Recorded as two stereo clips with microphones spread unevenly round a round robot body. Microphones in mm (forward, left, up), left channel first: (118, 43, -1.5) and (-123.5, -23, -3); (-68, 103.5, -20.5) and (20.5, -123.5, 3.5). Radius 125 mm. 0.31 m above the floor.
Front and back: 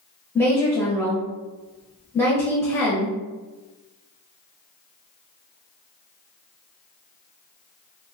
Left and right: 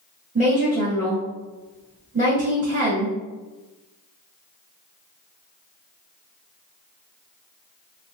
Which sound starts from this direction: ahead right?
A woman speaking, at 0.3 s.